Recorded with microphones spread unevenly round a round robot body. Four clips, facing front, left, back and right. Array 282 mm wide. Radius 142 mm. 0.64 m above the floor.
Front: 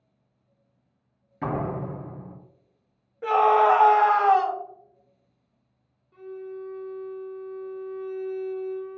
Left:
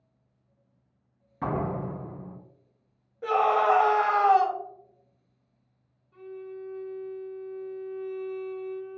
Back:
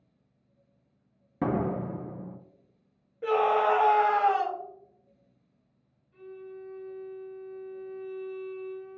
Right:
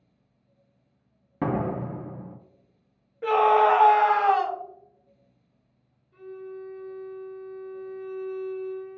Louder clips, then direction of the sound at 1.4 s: Right 3 dB, even; 125° right.